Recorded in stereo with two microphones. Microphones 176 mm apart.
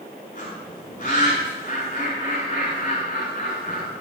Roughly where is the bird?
Left.